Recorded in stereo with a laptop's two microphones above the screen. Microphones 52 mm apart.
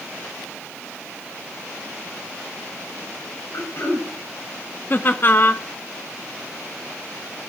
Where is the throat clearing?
50° left (ahead or behind), 3.5 m.